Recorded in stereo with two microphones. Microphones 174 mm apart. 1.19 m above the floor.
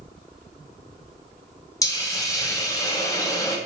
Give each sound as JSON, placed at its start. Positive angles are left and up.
{"t": 1.8, "sound": "a hiss", "side_deg": 20, "distance_m": 0.6}